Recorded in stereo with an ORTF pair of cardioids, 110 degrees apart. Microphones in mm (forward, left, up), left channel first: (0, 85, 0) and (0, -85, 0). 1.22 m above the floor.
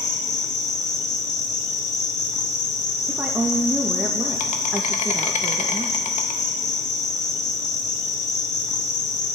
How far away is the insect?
About 1.5 m.